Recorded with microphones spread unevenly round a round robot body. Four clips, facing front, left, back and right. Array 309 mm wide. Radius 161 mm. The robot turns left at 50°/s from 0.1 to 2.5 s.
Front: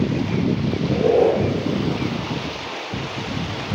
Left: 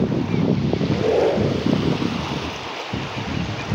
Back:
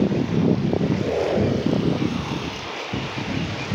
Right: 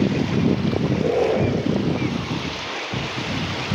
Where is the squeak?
35° left, 3 m; by 1.4 s 10° left, 3 m.